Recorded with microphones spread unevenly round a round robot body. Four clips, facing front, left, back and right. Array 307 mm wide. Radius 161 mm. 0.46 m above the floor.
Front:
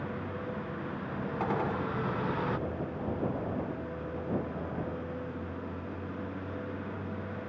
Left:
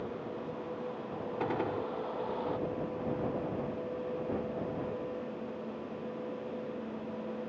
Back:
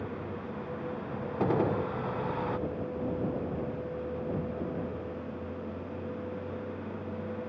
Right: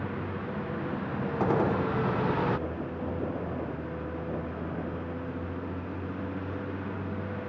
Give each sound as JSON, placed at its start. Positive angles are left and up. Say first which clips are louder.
{"t": 0.0, "sound": "a vehicle", "louder": "right 4 dB, front 1 dB", "azimuth_deg": -85}
{"t": 1.4, "sound": "a gunshot", "louder": "right 8 dB, back 4 dB", "azimuth_deg": -140}